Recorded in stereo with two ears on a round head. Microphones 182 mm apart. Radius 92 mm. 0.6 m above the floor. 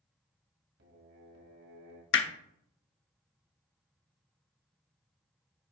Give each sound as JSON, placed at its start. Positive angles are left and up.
{"t": 0.8, "sound": "singing", "side_deg": -55, "distance_m": 1.7}
{"t": 2.1, "sound": "hammering", "side_deg": 60, "distance_m": 0.9}